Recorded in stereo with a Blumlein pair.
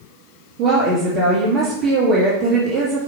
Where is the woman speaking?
40° right, 1.5 m.